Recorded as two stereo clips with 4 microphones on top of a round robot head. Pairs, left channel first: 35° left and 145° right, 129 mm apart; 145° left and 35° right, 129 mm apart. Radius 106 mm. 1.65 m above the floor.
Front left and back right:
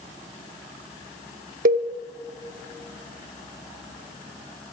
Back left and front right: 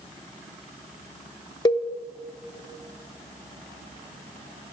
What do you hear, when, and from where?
1.6 s a cowbell: 155° right, 0.5 m